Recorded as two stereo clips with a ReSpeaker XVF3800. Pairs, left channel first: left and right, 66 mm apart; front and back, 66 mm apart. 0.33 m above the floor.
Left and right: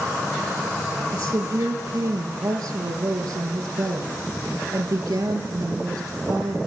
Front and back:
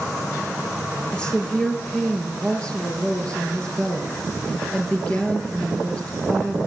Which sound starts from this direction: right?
A woman speaking, at 1.1 s.